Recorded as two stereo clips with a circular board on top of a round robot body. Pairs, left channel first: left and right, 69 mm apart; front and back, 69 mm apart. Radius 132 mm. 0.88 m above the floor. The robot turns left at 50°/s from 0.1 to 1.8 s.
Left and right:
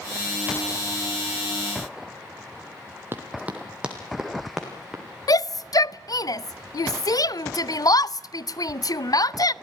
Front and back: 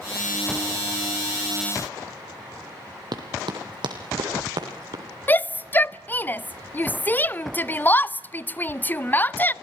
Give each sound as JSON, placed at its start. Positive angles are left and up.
{"t": 3.1, "sound": "running footsteps", "azimuth_deg": -150, "distance_m": 1.4}
{"t": 5.3, "sound": "a shout", "azimuth_deg": 65, "distance_m": 0.6}